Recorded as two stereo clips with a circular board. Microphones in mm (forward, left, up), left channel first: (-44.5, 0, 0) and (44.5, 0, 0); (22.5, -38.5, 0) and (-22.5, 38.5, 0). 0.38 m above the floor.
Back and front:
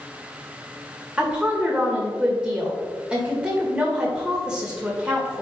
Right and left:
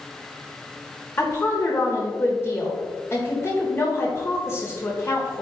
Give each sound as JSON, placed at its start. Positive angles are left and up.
{"t": 1.2, "sound": "a woman speaking", "azimuth_deg": -65, "distance_m": 1.3}